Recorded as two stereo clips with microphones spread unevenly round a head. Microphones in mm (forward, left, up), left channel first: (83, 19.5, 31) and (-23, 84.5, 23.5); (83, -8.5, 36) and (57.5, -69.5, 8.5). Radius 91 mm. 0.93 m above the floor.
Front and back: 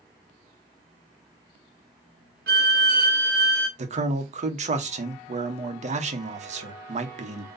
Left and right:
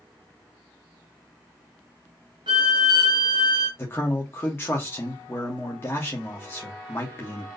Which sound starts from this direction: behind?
A violin, at 2.5 s.